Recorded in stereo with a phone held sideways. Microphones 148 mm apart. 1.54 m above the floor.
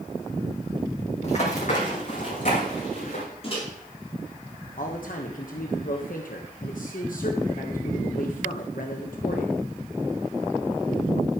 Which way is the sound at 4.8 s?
70° left (ahead or behind).